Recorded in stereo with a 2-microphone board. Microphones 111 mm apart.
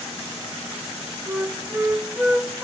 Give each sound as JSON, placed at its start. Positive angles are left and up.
{"t": 1.3, "sound": "a flute", "side_deg": -15, "distance_m": 0.6}